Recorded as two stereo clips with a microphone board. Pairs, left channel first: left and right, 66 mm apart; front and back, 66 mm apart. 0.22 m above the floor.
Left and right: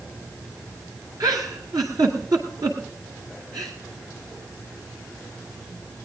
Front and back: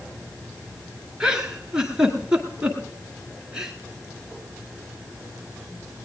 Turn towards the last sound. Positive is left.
turn(degrees=-100)